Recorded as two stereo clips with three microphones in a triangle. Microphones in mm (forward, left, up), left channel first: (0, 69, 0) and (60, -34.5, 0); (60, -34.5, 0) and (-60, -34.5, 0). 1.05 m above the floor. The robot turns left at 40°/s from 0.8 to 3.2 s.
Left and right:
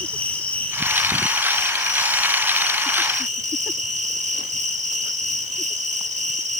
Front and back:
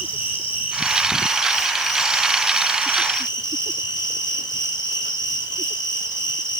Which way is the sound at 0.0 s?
40° left.